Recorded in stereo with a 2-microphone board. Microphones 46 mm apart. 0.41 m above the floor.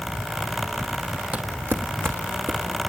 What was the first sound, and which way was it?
Footsteps, 35° right (ahead or behind).